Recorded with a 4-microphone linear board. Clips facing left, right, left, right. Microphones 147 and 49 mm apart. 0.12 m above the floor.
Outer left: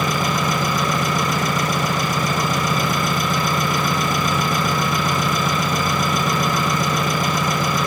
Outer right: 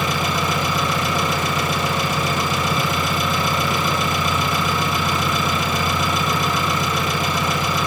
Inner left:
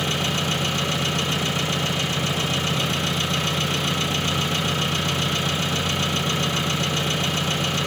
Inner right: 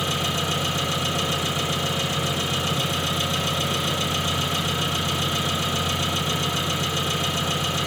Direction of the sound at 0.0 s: 45° left (ahead or behind).